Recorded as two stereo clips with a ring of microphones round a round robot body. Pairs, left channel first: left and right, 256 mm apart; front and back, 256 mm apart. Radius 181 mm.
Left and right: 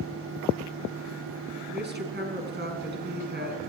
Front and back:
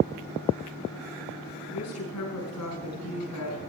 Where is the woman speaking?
45° right, 5 m.